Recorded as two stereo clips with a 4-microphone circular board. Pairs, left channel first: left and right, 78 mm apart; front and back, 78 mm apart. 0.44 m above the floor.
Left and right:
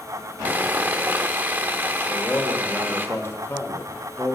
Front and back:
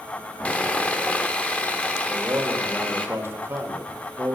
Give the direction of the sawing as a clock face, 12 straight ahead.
2 o'clock.